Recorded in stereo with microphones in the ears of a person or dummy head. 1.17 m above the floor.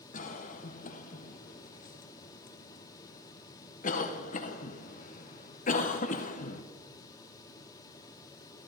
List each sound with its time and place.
0.1 s a cough: 45° left (ahead or behind), 0.7 m